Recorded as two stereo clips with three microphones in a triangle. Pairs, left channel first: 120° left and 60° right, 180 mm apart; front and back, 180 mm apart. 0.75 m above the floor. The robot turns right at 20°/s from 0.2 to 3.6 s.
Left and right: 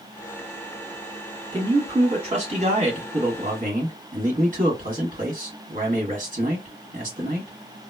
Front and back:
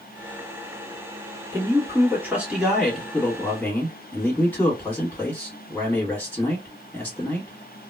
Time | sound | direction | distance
1.5 | a man speaking | 120° right | 1.4 m